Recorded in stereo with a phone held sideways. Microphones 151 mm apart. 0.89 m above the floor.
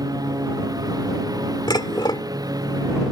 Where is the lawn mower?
25° right (ahead or behind).